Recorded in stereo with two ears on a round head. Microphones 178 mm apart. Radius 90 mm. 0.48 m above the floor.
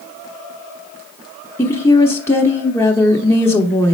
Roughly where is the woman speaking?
Centre.